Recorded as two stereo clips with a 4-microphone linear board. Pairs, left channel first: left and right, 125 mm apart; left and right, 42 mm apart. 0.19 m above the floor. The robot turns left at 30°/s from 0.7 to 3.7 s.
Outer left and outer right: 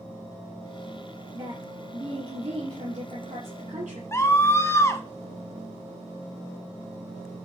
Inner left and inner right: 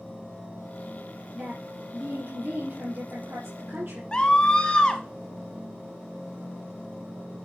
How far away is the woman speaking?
About 5 m.